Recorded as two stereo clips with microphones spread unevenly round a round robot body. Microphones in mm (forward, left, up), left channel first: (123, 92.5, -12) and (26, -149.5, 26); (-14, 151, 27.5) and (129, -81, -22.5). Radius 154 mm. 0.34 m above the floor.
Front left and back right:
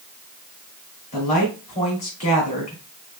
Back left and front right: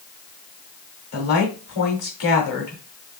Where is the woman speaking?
125° left, 2.0 m.